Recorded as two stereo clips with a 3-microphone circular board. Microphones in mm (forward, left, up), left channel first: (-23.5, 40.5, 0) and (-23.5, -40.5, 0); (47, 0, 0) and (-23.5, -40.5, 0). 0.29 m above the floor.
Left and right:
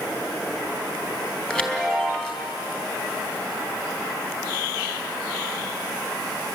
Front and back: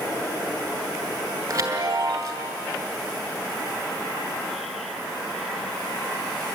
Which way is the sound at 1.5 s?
170° left.